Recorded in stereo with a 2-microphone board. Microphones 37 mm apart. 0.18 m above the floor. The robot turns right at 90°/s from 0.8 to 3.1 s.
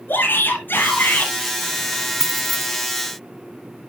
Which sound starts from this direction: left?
A shout, at 0.1 s.